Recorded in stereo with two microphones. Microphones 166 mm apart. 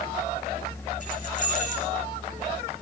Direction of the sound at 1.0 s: 50° left (ahead or behind).